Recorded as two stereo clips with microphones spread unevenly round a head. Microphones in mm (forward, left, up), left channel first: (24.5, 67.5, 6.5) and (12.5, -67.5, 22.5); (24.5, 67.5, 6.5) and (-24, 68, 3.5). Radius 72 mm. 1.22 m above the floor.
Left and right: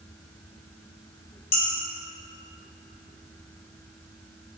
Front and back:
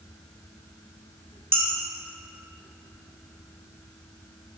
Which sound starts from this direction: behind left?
Dishes clattering, at 1.5 s.